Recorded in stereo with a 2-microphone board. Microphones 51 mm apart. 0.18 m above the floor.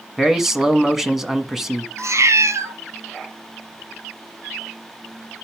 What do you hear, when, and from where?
0.2 s a man speaking: 10° right (ahead or behind), 1.2 m
2.0 s a cat meowing: 70° right (ahead or behind), 1.0 m